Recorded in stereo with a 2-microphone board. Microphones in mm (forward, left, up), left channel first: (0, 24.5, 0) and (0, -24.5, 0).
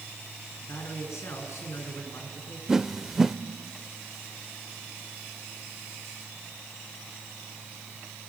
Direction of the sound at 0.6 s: 70° left (ahead or behind).